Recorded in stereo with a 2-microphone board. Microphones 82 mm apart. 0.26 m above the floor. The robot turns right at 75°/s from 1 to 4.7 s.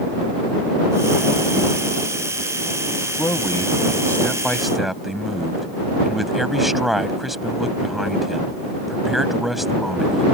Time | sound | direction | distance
3.2 | a man speaking | 70° left | ?